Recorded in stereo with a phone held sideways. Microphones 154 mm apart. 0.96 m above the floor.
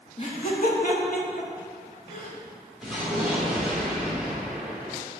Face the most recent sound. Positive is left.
turn(degrees=0)  # may be behind; listen again after turning